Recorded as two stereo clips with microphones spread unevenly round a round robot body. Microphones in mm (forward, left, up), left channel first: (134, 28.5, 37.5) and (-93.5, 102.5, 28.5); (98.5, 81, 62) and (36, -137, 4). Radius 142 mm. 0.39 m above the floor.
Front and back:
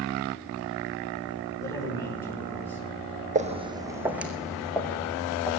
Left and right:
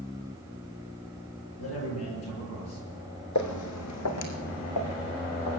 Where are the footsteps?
100° left, 1.3 m; by 5.6 s 60° left, 3 m.